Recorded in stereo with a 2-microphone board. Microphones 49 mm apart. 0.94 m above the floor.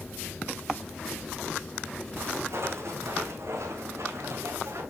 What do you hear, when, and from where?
2.2 s footsteps: 55° right (ahead or behind), 2.5 m; by 4.8 s 65° right (ahead or behind), 4 m